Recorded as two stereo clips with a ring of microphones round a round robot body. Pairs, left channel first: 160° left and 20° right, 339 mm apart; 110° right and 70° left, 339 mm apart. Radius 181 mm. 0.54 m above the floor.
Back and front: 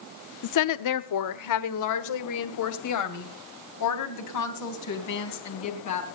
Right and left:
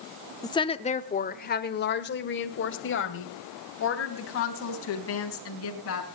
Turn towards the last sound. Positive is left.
turn(degrees=-160)